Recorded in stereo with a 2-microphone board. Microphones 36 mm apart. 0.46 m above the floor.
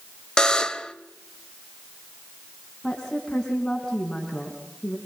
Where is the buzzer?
20° left (ahead or behind), 1.0 m.